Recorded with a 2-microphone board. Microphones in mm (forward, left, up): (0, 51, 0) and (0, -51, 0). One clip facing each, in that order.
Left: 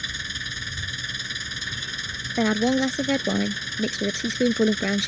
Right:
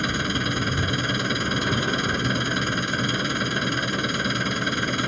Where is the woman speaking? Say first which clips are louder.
Left 6 dB; 70° left (ahead or behind).